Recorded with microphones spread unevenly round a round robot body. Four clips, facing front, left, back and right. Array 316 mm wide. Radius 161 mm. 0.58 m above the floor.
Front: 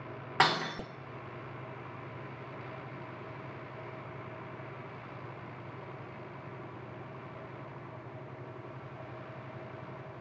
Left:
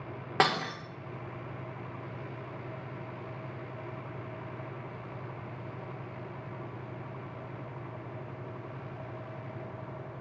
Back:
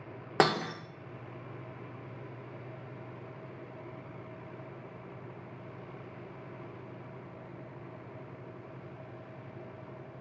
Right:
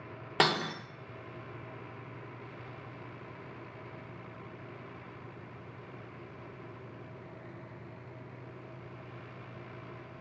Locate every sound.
0.4 s breaking glass: 175° left, 0.7 m